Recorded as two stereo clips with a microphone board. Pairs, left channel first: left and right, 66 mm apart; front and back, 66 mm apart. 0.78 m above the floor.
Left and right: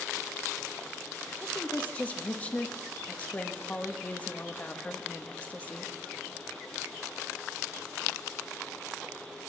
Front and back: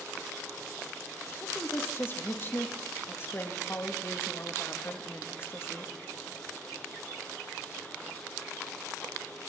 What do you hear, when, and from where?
1.4 s a woman speaking: 35° left, 0.9 m